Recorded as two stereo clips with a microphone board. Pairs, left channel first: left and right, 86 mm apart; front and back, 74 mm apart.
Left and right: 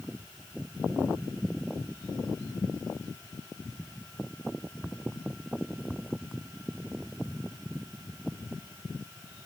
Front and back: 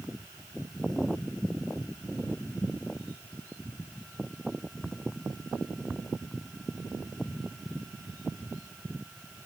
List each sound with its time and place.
Only background noise.